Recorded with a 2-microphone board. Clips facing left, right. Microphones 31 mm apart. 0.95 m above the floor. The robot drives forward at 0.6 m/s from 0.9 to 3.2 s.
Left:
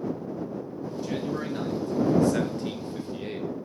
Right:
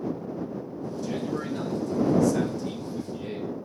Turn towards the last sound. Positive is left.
turn(degrees=40)  # may be behind; listen again after turning